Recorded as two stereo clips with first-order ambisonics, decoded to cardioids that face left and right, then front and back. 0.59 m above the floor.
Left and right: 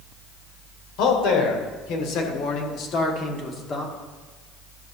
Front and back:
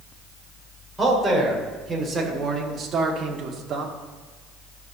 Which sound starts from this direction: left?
A man speaking, at 1.0 s.